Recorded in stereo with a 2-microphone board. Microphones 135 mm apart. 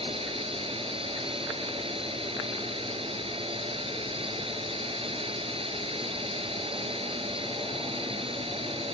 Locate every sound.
0.0 s a drone: 45° right (ahead or behind)